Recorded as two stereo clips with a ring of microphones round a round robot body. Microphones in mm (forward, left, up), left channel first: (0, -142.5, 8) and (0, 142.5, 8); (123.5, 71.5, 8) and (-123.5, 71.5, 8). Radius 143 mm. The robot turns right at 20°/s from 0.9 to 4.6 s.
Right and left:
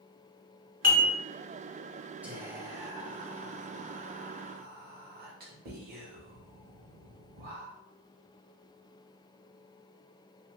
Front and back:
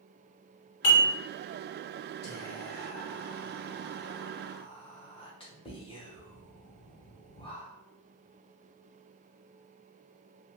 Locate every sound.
0.8 s dishes clattering: 30° left, 1.6 m
2.2 s whispering: 10° left, 1.0 m; by 7.8 s 55° left, 1.0 m